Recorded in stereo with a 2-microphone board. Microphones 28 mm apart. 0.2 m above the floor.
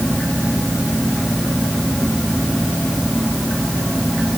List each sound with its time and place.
Only background noise.